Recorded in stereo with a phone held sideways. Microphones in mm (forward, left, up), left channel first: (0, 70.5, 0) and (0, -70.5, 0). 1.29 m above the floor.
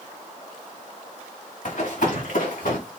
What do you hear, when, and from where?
1.6 s running footsteps: 65° left (ahead or behind), 6 m; by 2.8 s 70° left (ahead or behind), 6 m